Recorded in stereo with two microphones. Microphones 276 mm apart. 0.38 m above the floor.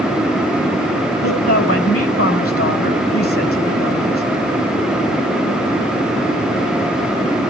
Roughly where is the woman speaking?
Left.